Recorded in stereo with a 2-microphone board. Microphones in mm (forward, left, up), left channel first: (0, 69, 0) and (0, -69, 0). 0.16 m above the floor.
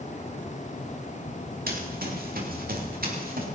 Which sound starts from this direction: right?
Running footsteps, at 1.7 s.